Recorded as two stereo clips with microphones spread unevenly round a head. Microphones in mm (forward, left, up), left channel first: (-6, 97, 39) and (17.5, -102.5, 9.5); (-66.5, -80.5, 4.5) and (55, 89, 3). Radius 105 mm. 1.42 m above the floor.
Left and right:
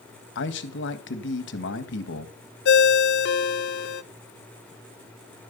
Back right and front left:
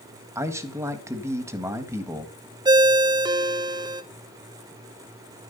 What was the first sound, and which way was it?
A man speaking, 130° left.